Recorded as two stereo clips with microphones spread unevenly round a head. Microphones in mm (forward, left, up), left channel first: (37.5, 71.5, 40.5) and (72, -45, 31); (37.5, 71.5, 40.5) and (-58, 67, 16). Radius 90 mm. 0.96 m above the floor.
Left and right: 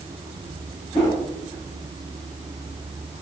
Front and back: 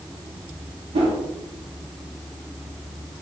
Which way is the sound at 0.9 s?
Straight behind.